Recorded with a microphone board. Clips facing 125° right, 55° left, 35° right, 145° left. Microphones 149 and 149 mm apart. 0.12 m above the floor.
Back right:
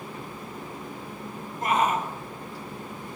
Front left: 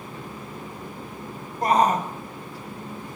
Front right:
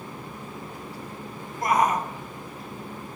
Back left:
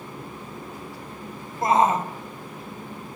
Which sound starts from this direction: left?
A shout, at 1.6 s.